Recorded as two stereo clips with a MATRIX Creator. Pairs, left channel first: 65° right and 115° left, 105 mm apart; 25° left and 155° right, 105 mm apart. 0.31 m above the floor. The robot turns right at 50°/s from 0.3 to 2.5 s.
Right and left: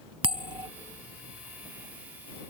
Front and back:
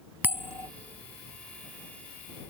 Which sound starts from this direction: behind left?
A bell, at 0.2 s.